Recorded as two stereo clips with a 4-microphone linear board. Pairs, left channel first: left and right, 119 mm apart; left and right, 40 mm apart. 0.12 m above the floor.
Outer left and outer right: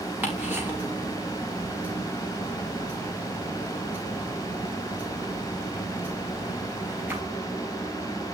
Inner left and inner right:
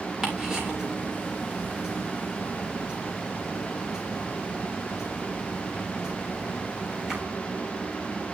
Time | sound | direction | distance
0.2 | ticking | 15° right (ahead or behind) | 6 m